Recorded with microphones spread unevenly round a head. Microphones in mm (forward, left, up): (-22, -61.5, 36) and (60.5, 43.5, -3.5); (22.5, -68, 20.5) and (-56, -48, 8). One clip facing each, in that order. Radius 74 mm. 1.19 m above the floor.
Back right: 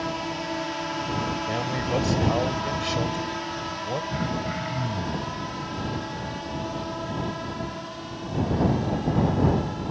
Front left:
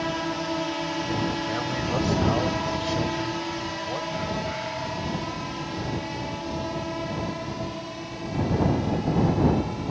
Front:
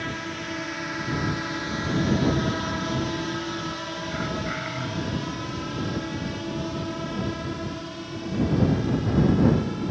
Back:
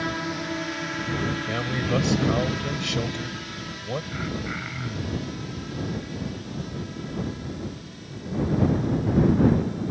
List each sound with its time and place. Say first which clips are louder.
0.0 s a drone: front left 2 dB, back 3 dB; 115° left; by 9.9 s 25° right
1.5 s a man speaking: back right 1 dB, back 2 dB; 165° left
4.1 s throat clearing: even, front 2 dB; 90° right